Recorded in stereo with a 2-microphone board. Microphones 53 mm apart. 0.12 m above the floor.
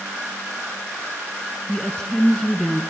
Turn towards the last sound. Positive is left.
turn(degrees=15)  # may be behind; listen again after turning